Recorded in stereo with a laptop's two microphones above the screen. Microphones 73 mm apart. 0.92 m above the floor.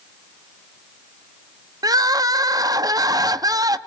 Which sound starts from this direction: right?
Crying, at 1.8 s.